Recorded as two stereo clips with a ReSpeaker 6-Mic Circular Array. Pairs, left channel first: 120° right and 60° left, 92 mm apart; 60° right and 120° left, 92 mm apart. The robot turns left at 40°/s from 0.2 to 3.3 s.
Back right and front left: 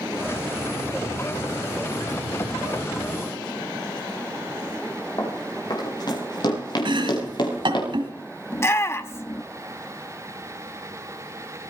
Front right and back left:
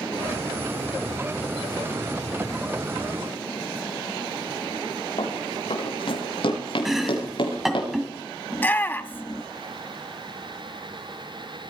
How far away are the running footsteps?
About 6 m.